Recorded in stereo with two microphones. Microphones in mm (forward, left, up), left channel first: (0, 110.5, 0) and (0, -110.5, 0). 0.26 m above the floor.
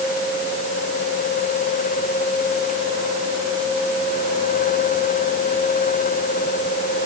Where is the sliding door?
I don't hear a sliding door.